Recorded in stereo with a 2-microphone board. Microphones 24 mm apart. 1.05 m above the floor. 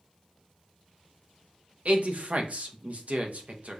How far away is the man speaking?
About 0.8 m.